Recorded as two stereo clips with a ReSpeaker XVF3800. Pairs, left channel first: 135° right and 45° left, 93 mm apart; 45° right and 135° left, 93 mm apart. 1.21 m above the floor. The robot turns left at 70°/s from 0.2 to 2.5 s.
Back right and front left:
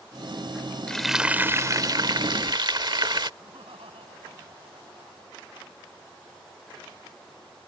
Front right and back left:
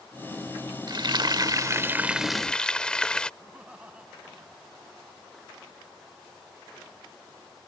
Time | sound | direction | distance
0.9 | frying | 145° left | ?
3.4 | laughter | 55° left | ?